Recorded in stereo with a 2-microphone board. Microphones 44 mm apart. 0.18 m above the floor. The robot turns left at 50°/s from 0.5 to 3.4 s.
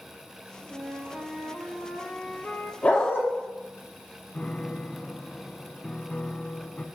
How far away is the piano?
About 0.5 m.